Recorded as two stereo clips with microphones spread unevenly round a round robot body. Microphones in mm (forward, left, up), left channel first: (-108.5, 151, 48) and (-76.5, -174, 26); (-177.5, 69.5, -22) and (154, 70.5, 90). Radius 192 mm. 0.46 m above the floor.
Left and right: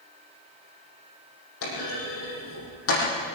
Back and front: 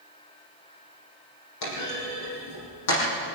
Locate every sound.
1.6 s a clunk: 145° left, 8 m